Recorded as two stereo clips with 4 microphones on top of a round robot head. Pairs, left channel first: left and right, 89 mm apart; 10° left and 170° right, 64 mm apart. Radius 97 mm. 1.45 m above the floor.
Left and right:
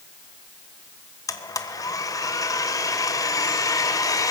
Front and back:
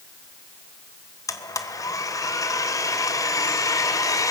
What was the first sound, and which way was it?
A blender, 40° left.